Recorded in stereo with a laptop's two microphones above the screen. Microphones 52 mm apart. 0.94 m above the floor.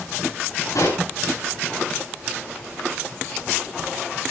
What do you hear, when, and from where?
0.8 s a pop: 90° left, 8 m